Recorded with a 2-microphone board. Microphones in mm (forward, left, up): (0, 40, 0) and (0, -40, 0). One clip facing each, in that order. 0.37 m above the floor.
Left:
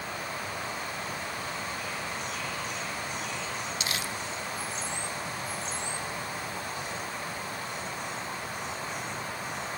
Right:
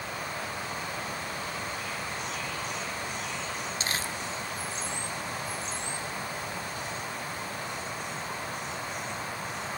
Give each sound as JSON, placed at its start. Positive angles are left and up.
{"t": 3.8, "sound": "crumpling", "side_deg": -40, "distance_m": 1.1}